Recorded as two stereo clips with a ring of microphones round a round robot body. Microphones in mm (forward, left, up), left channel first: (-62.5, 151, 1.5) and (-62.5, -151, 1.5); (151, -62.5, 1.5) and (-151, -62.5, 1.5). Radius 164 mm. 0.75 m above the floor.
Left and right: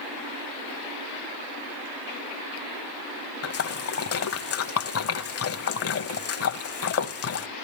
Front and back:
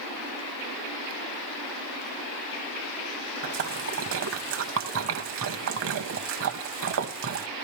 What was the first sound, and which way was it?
A splash, 130° left.